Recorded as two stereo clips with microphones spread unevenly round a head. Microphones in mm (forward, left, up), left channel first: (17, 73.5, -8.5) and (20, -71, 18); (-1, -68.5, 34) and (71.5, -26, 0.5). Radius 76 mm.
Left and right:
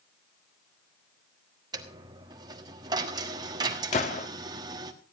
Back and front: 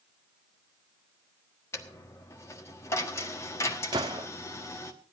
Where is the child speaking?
I don't hear a child speaking.